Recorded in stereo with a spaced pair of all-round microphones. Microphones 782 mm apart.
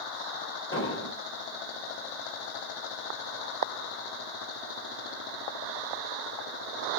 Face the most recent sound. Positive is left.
turn(degrees=15)  # may be behind; listen again after turning